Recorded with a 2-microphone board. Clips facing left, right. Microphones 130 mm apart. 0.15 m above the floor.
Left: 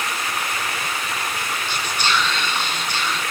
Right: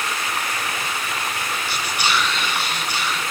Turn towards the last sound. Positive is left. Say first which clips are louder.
# even
turn(degrees=-10)  # may be behind; listen again after turning